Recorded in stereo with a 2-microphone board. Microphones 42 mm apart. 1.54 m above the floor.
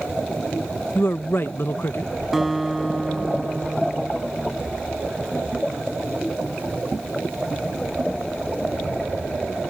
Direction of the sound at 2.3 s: Centre (ahead or behind).